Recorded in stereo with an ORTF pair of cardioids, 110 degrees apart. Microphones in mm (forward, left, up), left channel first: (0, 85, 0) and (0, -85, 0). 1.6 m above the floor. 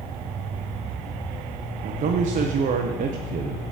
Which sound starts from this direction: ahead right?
A man speaking, at 1.8 s.